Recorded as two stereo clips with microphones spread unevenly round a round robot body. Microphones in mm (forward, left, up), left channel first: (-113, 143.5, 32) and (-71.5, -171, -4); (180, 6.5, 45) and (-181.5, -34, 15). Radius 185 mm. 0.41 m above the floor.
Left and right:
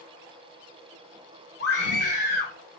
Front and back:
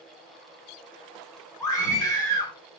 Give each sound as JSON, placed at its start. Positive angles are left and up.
{"t": 1.6, "sound": "a scream", "azimuth_deg": 90, "distance_m": 1.1}